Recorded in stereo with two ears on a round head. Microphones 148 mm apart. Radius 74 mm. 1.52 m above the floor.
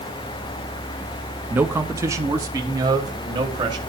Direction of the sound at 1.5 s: 10° right (ahead or behind).